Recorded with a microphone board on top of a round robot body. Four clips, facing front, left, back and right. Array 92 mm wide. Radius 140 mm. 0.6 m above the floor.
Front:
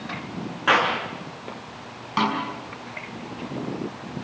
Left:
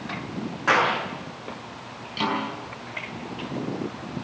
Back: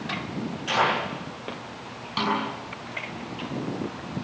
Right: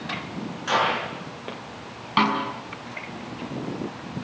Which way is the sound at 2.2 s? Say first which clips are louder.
Right 5 dB, front 2 dB; 70° right.